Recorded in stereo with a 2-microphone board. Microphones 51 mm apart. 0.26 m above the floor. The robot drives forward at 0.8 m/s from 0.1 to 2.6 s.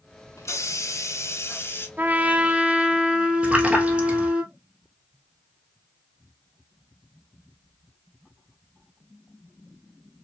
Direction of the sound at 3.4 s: 25° right (ahead or behind).